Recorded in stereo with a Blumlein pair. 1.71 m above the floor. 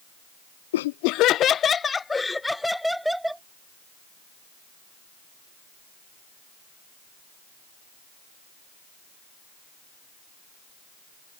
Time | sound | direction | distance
0.7 | laughter | 60° left | ?